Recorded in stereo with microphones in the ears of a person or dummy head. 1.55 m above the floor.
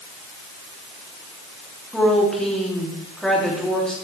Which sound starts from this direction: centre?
A woman speaking, at 1.9 s.